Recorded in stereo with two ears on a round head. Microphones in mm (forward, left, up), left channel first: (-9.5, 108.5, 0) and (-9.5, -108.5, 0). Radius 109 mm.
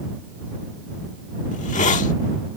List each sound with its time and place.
1.5 s a hiss: 30° left (ahead or behind)